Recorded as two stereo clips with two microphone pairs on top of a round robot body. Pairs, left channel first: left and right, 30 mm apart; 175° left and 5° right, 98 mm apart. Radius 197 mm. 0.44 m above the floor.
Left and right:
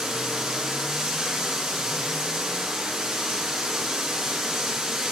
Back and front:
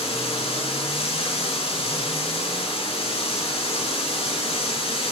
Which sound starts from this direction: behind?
Running water, at 0.0 s.